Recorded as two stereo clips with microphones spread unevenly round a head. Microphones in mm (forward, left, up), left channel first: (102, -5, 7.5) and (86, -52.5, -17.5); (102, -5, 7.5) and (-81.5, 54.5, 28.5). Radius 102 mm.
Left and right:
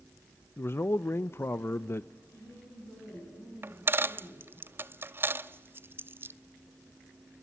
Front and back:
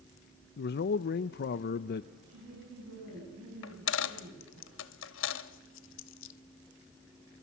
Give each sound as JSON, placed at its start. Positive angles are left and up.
{"t": 0.6, "sound": "a man speaking", "azimuth_deg": 20, "distance_m": 0.5}
{"t": 2.3, "sound": "a woman speaking", "azimuth_deg": 145, "distance_m": 8.5}
{"t": 3.6, "sound": "a dropped coin", "azimuth_deg": -50, "distance_m": 0.7}